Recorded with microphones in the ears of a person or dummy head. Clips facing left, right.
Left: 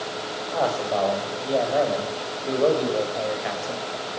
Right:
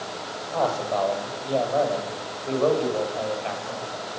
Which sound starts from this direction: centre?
A man speaking, at 0.5 s.